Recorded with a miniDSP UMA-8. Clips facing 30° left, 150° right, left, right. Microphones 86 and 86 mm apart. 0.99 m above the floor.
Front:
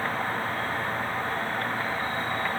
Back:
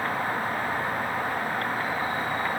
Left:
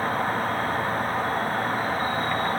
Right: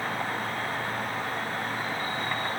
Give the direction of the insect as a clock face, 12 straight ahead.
8 o'clock.